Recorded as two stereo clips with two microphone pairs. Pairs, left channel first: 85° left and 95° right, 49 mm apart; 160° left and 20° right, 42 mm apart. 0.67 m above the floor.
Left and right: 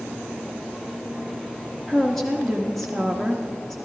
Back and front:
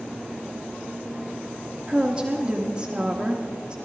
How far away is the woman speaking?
About 1.0 m.